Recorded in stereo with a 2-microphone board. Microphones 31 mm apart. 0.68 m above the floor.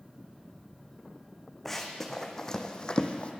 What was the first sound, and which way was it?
Running footsteps, 10° left (ahead or behind).